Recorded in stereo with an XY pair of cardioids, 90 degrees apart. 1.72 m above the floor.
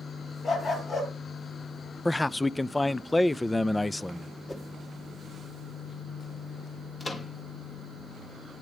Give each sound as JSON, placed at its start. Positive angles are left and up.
{"t": 0.4, "sound": "a dog barking", "azimuth_deg": 55, "distance_m": 9.5}
{"t": 2.0, "sound": "a man speaking", "azimuth_deg": 15, "distance_m": 0.5}
{"t": 4.5, "sound": "a whoosh", "azimuth_deg": 25, "distance_m": 2.5}
{"t": 7.0, "sound": "a microwave", "azimuth_deg": 35, "distance_m": 3.0}